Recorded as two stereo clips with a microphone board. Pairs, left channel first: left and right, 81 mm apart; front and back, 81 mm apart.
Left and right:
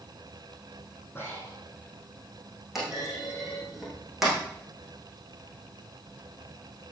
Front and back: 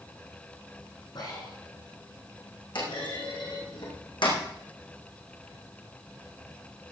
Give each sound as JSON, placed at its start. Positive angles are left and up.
{"t": 1.1, "sound": "breathing", "azimuth_deg": 25, "distance_m": 5.5}
{"t": 2.8, "sound": "a clunk", "azimuth_deg": -5, "distance_m": 4.5}